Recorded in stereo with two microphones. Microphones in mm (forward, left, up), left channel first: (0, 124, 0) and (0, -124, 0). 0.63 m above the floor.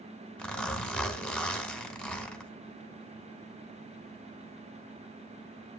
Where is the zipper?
5° left (ahead or behind), 1.9 m.